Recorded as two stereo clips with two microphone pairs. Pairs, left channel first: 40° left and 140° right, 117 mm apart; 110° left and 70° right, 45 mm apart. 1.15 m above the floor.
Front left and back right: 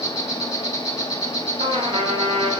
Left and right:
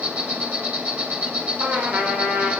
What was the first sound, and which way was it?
An insect, 15° right.